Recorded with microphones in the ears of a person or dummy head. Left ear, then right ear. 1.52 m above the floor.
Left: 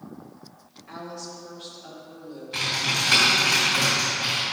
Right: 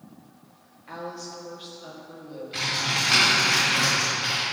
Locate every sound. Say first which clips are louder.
0.9 s a woman speaking: right 1 dB; 15° right (ahead or behind), 1.5 m
2.5 s typing on a keyboard: left 1 dB; 15° left (ahead or behind), 2.5 m